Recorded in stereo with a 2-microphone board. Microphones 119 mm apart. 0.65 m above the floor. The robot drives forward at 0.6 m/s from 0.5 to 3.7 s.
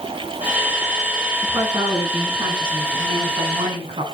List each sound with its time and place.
1.4 s a woman speaking: 40° right (ahead or behind), 5.5 m; by 4.0 s 50° right (ahead or behind), 5 m